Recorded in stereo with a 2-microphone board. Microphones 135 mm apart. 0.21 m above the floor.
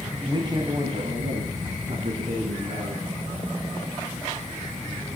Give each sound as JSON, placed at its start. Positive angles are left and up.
{"t": 0.2, "sound": "a man speaking", "side_deg": -30, "distance_m": 1.6}